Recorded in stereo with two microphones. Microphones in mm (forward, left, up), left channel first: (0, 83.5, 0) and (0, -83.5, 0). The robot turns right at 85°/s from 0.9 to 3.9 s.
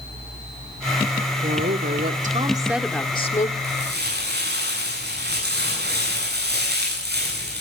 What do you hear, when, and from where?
1.4 s a woman speaking: 120° right, 1.8 m; by 3.5 s 60° left, 1.8 m
3.6 s crumpling: 80° right, 9.5 m; by 7.6 s 75° right (ahead or behind), 9.5 m